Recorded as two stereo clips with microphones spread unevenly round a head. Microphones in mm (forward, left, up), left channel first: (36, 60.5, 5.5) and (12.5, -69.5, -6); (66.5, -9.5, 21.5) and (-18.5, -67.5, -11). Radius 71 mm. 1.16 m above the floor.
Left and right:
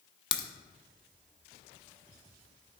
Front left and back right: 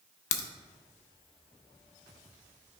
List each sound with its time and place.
0.3 s a crack: 20° left, 0.7 m